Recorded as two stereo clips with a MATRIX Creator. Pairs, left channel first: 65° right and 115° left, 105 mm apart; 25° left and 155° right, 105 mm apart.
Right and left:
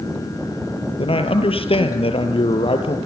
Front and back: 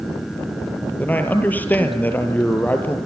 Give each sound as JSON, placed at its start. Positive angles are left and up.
{"t": 1.0, "sound": "a man speaking", "azimuth_deg": -50, "distance_m": 3.0}